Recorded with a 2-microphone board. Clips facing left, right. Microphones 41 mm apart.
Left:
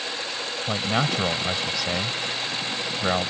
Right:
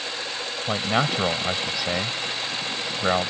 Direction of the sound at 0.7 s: 10° right (ahead or behind).